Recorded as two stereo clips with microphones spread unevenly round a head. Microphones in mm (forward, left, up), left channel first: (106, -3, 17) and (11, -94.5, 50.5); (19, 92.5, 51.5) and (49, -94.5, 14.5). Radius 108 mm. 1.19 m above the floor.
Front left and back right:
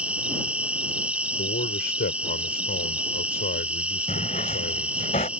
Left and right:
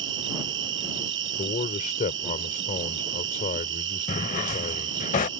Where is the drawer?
105° left.